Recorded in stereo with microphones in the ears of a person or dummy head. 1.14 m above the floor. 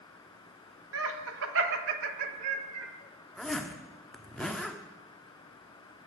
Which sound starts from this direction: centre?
A zipper, at 3.4 s.